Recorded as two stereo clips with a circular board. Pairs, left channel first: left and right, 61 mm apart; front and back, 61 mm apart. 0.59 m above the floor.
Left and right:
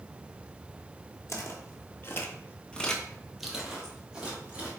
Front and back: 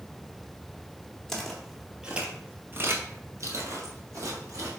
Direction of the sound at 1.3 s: 80° left.